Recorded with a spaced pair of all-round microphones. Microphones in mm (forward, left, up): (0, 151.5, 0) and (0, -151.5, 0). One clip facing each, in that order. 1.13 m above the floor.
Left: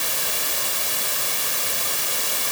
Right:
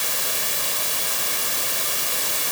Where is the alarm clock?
No alarm clock in this recording.